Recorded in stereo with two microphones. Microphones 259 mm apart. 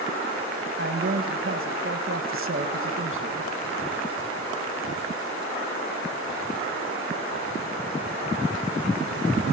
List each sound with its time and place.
0.8 s a man speaking: 50° right (ahead or behind), 1.8 m